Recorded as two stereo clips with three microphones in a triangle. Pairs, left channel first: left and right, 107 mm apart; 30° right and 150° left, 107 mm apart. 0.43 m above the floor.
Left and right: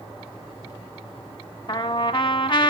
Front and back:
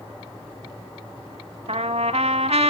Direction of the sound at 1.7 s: 130° left.